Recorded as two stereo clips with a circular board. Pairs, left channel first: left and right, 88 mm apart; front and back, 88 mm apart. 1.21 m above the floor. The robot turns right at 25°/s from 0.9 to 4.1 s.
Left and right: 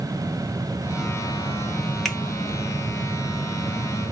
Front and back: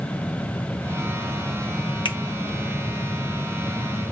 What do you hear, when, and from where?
2.0 s a finger snap: straight ahead, 0.8 m; by 2.2 s 5° left, 0.8 m